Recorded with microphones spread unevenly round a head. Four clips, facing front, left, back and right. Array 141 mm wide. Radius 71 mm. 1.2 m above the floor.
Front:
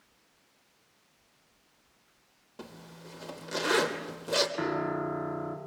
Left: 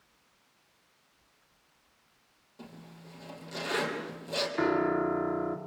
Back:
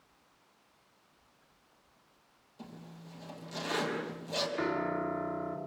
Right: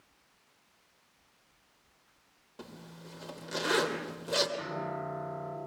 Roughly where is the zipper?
Ahead.